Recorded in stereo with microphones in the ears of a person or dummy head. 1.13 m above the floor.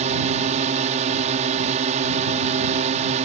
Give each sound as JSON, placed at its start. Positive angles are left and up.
{"t": 0.0, "sound": "a drone", "side_deg": -35}